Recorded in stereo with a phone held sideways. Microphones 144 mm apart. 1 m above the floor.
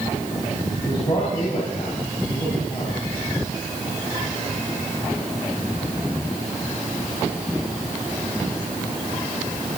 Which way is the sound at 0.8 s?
40° left (ahead or behind).